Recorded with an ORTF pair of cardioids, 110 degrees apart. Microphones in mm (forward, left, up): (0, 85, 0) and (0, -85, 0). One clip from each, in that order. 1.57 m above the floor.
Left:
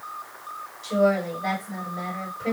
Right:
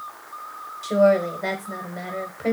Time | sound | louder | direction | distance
0.8 | a woman speaking | right 4 dB | 60° right | 1.2 m